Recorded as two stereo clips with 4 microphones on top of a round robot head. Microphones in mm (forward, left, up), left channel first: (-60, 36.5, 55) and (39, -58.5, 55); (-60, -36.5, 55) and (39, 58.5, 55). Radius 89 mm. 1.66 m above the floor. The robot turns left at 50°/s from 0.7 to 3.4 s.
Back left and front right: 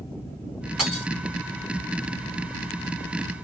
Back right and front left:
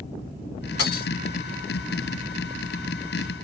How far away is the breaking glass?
About 3 m.